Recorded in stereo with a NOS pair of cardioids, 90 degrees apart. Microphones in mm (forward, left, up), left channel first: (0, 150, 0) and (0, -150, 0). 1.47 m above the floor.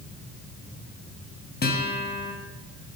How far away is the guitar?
About 3.5 m.